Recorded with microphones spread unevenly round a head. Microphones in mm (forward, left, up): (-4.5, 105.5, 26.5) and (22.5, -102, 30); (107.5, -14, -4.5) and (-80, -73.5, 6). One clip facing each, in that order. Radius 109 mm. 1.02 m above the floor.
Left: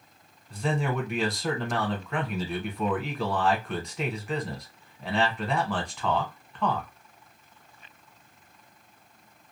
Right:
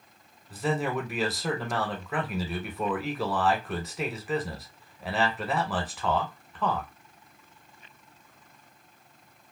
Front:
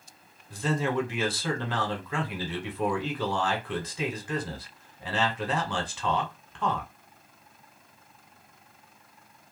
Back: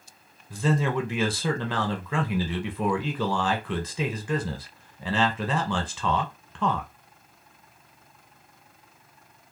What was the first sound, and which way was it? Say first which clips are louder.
A man speaking: even, back 2 dB; 170° right.